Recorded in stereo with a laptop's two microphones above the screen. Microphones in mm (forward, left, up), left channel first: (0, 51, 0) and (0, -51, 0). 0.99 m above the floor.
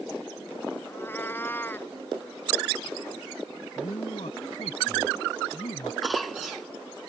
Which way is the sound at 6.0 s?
Centre (ahead or behind).